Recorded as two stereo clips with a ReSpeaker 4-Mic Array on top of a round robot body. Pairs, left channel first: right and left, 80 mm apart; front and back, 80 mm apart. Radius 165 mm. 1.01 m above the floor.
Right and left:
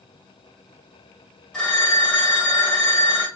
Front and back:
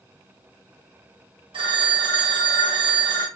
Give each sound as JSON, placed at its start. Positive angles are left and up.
{"t": 1.5, "sound": "a phone ringing", "azimuth_deg": -170, "distance_m": 1.5}